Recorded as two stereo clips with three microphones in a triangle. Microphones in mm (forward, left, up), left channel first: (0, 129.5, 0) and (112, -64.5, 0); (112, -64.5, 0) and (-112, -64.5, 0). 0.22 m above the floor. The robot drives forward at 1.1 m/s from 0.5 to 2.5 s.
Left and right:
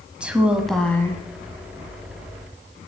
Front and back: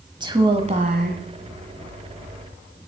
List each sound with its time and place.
0.2 s a woman speaking: 140° right, 1.0 m; by 1.2 s 165° right, 1.5 m